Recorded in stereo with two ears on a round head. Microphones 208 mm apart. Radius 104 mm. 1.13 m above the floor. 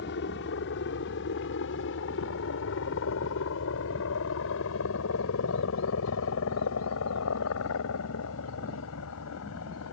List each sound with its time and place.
0.0 s a helicopter: 50° left (ahead or behind); by 9.9 s 65° left (ahead or behind)